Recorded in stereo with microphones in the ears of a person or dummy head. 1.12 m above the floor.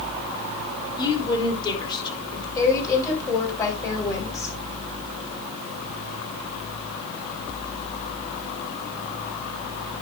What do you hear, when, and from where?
1.0 s a woman speaking: 25° left (ahead or behind), 3.5 m
2.5 s a woman speaking: 15° left (ahead or behind), 4 m